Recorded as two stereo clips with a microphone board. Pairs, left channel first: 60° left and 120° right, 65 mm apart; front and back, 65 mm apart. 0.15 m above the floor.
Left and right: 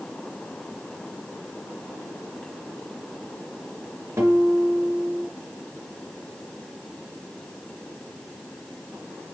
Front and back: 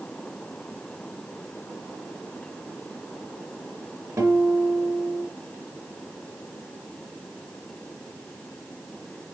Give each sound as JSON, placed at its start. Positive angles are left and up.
{"t": 4.2, "sound": "a guitar", "azimuth_deg": -160, "distance_m": 3.0}